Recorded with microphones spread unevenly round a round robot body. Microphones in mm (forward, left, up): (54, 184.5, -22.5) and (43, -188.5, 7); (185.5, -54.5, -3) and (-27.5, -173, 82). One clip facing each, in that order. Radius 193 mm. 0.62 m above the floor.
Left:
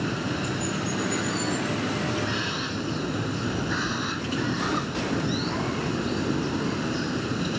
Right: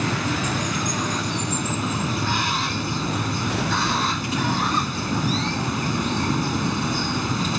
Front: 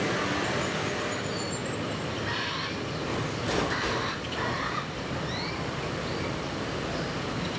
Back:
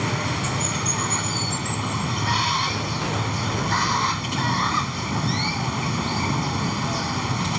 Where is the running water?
160° right.